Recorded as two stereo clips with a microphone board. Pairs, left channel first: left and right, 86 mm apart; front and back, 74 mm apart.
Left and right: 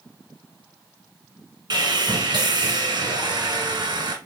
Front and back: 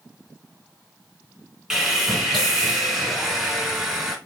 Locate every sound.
1.7 s sawing: 100° right, 0.9 m